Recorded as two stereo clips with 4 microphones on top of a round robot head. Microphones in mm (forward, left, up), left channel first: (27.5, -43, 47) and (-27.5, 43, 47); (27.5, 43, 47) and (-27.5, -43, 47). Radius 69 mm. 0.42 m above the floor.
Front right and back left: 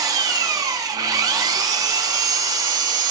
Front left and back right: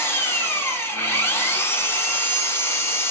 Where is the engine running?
110° left, 0.9 m.